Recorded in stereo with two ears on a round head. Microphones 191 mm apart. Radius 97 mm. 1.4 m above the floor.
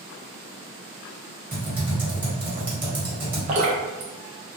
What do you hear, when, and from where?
1.5 s typing on a keyboard: 10° right (ahead or behind), 1.0 m
3.5 s dripping: 35° right (ahead or behind), 0.6 m